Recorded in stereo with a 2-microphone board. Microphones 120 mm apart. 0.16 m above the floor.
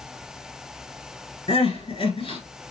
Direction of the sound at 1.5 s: 50° left (ahead or behind).